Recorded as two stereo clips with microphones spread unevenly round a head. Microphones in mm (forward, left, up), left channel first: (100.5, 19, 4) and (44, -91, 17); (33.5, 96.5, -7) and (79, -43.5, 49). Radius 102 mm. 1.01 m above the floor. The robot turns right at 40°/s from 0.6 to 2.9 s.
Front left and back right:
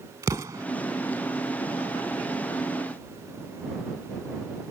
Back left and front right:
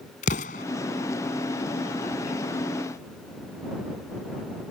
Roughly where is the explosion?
Behind.